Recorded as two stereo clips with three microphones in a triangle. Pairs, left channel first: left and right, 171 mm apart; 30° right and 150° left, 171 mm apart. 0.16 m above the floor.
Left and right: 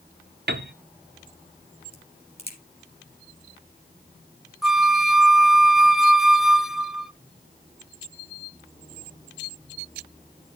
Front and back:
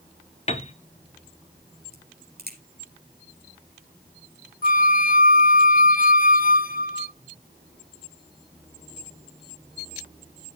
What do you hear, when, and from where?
0.5 s a piano: 85° right, 0.6 m
1.9 s a crack: 140° left, 3.5 m
4.6 s a flute: straight ahead, 0.5 m